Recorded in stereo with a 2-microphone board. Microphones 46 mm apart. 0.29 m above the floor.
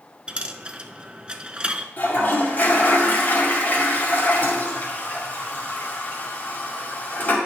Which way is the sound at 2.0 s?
40° left (ahead or behind).